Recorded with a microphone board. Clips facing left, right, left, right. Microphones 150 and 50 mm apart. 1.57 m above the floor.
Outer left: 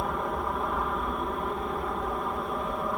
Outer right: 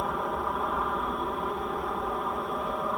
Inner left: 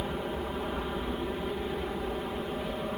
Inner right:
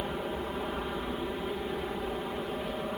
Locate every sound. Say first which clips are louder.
0.0 s an aircraft: even, even; centre (ahead or behind)